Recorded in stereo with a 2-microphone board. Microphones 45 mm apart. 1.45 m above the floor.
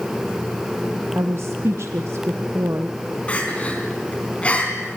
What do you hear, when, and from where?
1.1 s a woman speaking: 70° right (ahead or behind), 0.9 m
3.3 s crying: 25° left (ahead or behind), 4 m